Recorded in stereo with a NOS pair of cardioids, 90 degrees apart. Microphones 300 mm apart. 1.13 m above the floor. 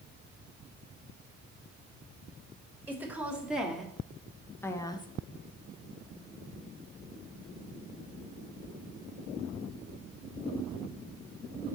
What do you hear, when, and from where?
2.9 s a woman speaking: 5° right, 2 m; by 5.1 s 15° left, 0.9 m